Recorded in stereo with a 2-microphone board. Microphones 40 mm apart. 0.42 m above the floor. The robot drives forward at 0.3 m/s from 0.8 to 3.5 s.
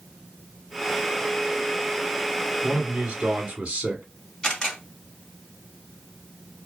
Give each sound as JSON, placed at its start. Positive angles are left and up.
{"t": 2.6, "sound": "a man speaking", "side_deg": -20, "distance_m": 0.9}
{"t": 4.4, "sound": "a camera shutter", "side_deg": 20, "distance_m": 1.3}